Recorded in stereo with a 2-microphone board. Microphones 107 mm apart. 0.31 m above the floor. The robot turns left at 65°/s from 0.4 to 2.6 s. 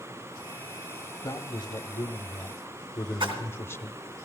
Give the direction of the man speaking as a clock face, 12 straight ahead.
8 o'clock.